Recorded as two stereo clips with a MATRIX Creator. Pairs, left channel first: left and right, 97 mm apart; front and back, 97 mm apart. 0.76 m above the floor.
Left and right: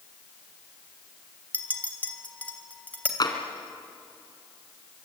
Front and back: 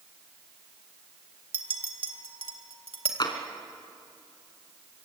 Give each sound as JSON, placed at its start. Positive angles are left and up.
{"t": 1.5, "sound": "a clink", "azimuth_deg": 165, "distance_m": 2.5}
{"t": 3.2, "sound": "tapping", "azimuth_deg": 45, "distance_m": 2.5}